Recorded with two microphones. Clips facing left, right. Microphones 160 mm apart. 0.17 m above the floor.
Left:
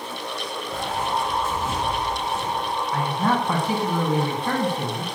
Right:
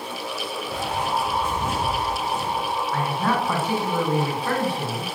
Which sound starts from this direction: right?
Footsteps, at 0.7 s.